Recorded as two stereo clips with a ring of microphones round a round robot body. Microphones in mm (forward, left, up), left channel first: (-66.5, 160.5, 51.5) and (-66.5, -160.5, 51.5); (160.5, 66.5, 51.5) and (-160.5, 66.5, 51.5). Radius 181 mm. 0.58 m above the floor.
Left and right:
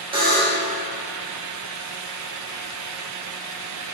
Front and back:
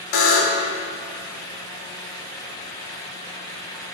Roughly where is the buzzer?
Ahead.